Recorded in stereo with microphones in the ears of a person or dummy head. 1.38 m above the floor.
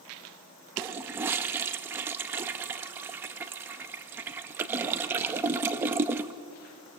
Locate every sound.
0.8 s a toilet flushing: 20° right (ahead or behind), 0.7 m